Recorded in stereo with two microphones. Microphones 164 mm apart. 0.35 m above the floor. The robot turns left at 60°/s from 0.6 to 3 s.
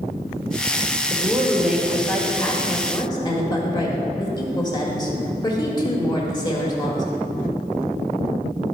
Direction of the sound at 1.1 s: 20° right (ahead or behind).